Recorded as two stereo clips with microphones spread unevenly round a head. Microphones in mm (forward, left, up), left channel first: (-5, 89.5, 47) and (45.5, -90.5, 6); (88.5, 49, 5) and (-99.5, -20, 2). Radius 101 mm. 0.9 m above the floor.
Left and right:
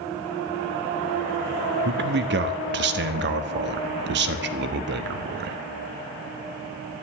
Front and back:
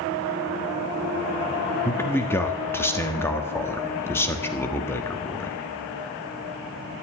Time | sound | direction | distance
1.9 | a man speaking | 60° right | 1.4 m